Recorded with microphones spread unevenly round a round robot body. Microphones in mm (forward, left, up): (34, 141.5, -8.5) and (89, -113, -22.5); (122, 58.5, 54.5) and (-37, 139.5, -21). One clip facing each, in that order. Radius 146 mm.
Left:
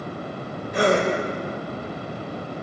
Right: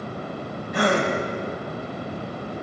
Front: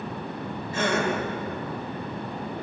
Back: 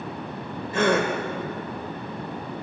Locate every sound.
0.7 s a gasp: 170° left, 3.5 m